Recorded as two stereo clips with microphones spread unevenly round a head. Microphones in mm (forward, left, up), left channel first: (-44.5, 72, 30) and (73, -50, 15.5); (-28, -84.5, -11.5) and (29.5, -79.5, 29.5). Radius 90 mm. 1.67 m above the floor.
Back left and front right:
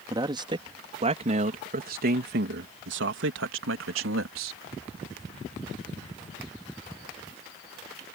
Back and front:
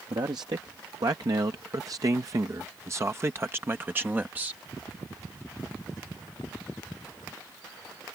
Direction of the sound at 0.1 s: 20° left.